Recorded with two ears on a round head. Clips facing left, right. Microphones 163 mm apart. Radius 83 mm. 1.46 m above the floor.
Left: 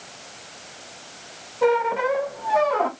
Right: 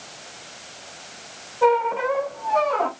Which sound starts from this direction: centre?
A squeak, at 1.6 s.